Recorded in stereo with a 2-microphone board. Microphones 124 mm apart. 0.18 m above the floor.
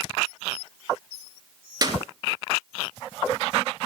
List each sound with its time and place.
1.8 s a clap: 35° right (ahead or behind), 3 m